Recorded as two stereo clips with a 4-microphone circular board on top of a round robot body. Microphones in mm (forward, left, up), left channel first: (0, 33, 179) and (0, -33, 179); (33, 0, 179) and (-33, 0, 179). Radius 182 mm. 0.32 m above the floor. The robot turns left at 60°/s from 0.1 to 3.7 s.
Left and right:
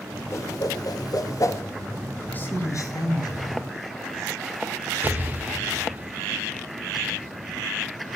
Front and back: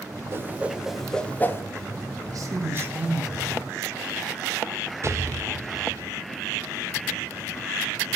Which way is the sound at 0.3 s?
130° left.